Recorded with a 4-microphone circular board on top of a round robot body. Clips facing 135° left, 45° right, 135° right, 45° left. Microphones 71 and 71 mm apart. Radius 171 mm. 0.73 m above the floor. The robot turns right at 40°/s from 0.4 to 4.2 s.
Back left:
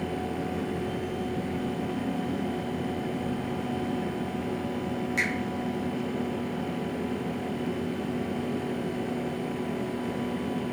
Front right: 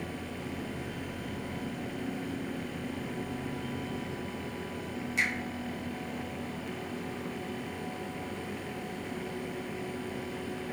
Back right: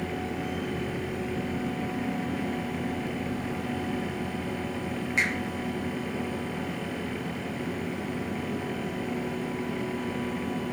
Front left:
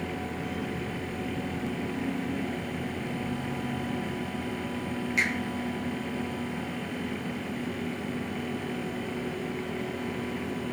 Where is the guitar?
I don't hear a guitar.